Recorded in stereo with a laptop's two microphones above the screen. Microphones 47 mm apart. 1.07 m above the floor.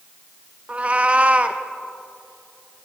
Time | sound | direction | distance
0.7 | a cat meowing | 25° right (ahead or behind) | 0.5 m